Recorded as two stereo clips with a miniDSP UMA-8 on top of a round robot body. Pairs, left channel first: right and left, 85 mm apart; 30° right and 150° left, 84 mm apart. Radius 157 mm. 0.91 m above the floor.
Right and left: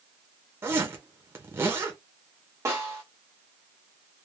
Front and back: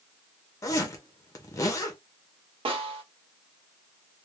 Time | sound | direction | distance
0.6 | a zipper | 25° left | 0.6 m
2.6 | a snare drum | 150° left | 0.5 m